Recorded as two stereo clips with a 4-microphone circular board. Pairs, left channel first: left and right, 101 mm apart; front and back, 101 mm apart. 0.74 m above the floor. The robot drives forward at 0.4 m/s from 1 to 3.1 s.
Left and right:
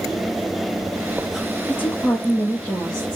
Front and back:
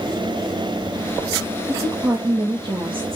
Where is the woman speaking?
145° left, 0.6 m; by 3.2 s 170° left, 1.0 m.